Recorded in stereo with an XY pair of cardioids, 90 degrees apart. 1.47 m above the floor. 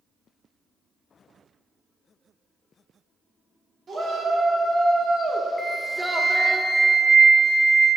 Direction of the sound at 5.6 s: 10° right.